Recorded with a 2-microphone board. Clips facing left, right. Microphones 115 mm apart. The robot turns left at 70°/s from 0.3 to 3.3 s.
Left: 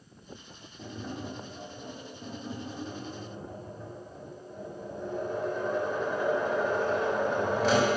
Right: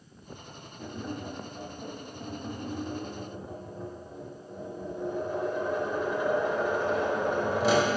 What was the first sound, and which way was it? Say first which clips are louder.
Tapping: right 2 dB; 5° left.